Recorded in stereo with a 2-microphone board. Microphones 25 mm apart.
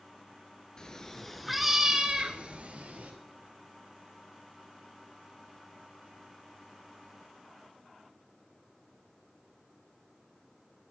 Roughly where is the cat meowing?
Left.